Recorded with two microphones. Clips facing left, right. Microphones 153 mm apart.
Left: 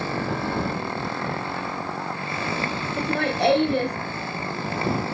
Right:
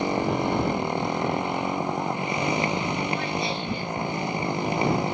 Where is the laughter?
65° left (ahead or behind).